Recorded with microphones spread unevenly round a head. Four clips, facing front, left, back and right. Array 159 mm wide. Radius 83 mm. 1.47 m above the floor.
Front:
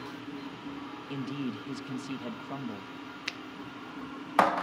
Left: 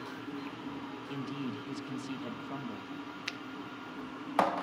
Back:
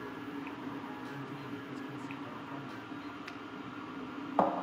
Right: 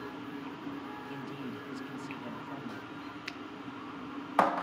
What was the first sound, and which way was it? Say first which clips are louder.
A man speaking: left 6 dB, front 7 dB; 10° left.